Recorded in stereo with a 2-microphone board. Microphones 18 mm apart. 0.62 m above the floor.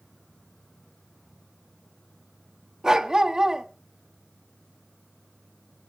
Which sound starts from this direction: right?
A dog barking, at 2.8 s.